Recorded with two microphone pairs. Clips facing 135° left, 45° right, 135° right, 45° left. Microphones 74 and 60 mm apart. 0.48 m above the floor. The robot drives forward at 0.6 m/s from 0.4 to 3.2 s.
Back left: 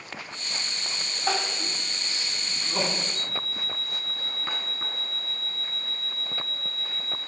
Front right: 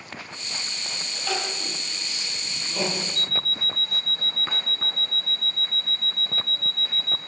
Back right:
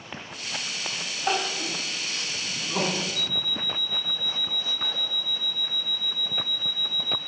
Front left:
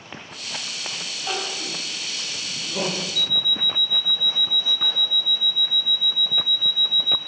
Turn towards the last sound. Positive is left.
turn(degrees=-65)